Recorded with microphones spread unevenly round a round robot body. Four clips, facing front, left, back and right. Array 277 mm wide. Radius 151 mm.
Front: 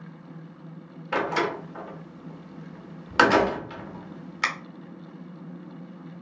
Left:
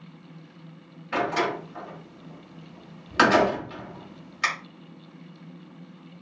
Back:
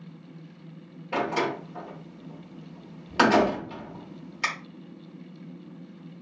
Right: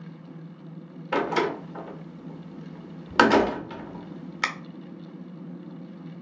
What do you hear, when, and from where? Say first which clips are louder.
1.1 s a door slam: right 1 dB, front 1 dB; 70° right, 1.2 m